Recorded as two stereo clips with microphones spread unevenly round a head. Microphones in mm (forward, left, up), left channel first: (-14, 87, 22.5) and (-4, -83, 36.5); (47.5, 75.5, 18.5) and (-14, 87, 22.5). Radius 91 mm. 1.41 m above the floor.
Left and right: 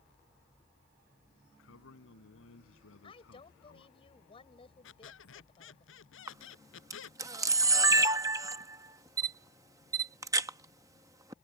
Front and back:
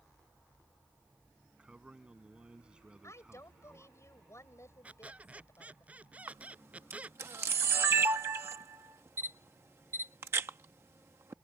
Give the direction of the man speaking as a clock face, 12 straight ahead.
9 o'clock.